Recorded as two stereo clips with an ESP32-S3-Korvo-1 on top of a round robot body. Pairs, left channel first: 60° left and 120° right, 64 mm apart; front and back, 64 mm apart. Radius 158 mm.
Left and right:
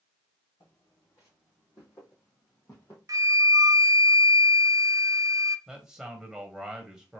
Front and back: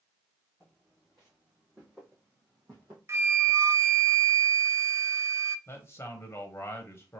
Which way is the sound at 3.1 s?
140° right.